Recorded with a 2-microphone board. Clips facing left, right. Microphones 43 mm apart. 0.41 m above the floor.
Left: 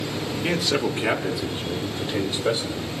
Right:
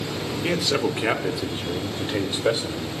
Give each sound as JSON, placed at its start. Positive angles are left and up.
{"t": 0.4, "sound": "a man speaking", "side_deg": 0, "distance_m": 0.8}